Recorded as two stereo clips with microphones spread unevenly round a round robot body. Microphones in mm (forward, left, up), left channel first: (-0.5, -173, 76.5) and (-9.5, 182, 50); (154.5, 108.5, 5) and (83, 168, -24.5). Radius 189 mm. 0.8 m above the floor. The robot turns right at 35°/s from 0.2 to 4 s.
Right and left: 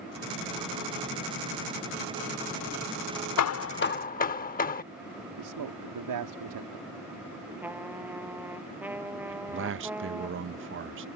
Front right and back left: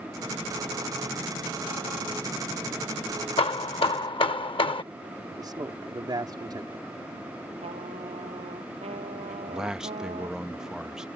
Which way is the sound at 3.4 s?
45° right.